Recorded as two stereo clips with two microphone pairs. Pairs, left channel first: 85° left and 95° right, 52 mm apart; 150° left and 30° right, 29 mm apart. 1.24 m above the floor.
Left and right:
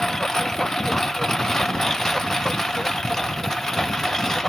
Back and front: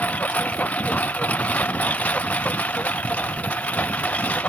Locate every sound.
0.0 s a lawn mower: 170° left